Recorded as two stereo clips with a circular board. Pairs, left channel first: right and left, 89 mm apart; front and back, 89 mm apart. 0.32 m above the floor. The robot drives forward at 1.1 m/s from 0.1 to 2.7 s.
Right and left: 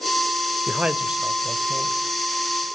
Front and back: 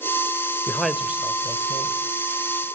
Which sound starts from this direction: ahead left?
A man speaking, at 0.7 s.